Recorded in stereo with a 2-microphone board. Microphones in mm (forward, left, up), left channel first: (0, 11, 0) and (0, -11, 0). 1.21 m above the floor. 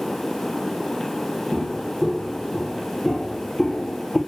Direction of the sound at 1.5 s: 10° right (ahead or behind).